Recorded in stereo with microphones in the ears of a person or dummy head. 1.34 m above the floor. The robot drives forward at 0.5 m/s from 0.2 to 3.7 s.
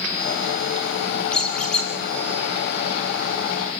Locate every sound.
1.3 s a squeak: 10° left (ahead or behind), 2 m